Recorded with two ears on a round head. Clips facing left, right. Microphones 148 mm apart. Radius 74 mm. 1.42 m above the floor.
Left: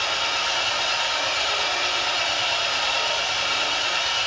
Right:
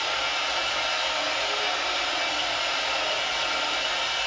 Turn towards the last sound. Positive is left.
turn(degrees=90)